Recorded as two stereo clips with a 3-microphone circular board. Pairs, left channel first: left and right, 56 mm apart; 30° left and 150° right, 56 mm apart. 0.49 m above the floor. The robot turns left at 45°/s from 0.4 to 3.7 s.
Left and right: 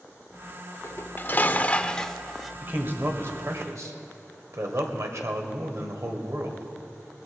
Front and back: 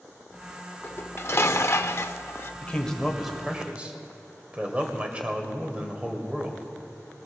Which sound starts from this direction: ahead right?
A man speaking, at 2.6 s.